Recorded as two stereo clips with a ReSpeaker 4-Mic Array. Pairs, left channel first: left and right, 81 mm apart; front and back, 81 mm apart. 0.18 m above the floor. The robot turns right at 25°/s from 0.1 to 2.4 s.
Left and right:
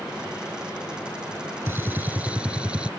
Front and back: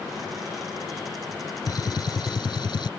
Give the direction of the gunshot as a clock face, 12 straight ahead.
1 o'clock.